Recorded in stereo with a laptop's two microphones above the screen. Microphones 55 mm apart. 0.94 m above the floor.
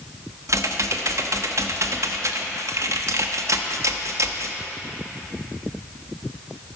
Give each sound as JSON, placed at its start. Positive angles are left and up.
{"t": 0.5, "sound": "typing on a keyboard", "side_deg": -65, "distance_m": 0.7}